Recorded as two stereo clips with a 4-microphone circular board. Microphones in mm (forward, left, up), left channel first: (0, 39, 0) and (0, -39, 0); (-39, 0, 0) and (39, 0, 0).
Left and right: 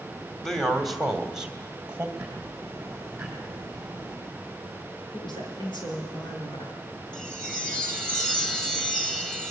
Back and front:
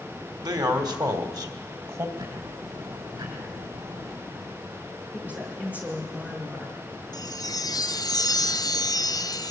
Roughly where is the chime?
Behind.